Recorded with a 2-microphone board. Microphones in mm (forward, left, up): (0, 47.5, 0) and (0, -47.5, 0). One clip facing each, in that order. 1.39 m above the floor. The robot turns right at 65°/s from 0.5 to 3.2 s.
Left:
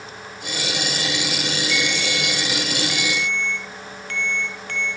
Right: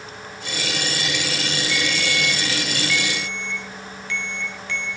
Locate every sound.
1.7 s a ringtone: 50° right, 5 m; by 4.9 s 50° left, 5 m